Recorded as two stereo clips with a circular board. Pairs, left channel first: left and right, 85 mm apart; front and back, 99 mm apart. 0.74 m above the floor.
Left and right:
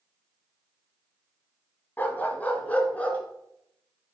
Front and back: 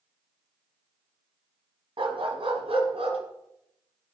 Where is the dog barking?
160° left, 1.4 m; by 3.2 s 165° left, 2.5 m.